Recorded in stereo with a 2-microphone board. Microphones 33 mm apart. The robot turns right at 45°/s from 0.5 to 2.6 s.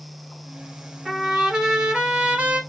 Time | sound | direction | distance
1.1 | a trumpet | 165° right | 1.2 m